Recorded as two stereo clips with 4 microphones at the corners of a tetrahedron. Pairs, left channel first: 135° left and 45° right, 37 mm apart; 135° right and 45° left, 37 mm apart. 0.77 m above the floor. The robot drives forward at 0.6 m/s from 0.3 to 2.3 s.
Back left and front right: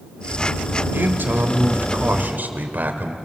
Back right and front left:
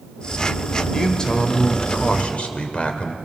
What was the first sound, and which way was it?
A man speaking, 60° right.